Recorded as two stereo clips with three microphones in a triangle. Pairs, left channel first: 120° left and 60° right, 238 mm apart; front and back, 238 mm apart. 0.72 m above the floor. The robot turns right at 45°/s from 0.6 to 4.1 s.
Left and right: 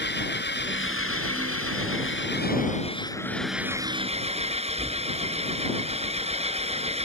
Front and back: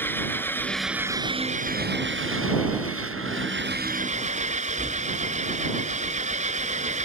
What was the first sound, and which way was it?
An engine running, 80° left.